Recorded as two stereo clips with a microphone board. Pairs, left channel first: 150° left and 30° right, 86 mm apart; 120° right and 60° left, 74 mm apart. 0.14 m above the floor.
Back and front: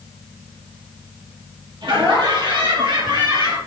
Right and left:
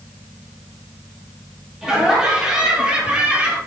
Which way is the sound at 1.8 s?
20° right.